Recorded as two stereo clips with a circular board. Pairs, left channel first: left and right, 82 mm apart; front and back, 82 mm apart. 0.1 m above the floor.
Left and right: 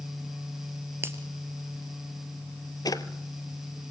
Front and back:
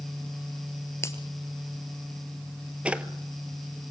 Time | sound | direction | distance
1.0 | a finger snap | 40° right | 2 m
2.9 | a drawer | 110° left | 1.0 m